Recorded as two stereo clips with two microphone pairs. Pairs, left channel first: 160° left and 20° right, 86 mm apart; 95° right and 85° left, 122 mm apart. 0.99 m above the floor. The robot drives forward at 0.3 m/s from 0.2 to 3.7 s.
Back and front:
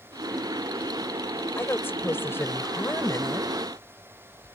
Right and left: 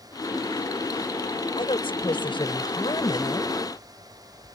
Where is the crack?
No crack in this recording.